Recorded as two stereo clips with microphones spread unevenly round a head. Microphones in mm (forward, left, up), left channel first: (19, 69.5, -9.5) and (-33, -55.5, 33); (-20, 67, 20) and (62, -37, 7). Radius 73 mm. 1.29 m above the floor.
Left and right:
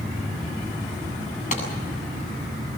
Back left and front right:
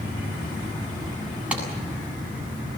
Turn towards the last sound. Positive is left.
turn(degrees=30)